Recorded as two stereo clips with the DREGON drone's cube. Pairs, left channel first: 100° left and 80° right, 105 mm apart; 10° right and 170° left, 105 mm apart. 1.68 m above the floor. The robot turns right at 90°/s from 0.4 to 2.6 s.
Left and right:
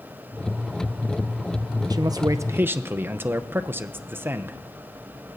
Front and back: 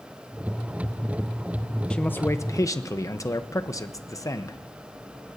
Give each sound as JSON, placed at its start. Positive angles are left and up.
{"t": 1.9, "sound": "a man speaking", "azimuth_deg": -85, "distance_m": 0.7}